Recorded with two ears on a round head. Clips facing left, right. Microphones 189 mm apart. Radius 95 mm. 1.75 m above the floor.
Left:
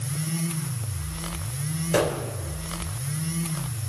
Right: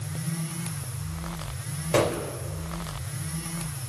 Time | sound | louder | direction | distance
1.9 | a gunshot | even | 15° left (ahead or behind) | 3.5 m